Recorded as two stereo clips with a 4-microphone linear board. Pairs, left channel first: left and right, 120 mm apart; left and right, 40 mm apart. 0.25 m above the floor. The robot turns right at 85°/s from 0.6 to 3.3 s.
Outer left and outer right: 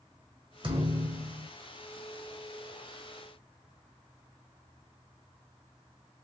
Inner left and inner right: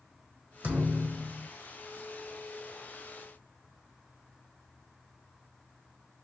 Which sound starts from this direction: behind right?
A thud, at 0.6 s.